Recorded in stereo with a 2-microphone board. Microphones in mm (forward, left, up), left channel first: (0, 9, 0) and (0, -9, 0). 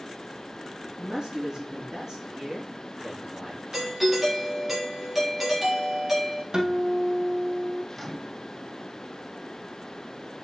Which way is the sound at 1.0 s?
35° right (ahead or behind).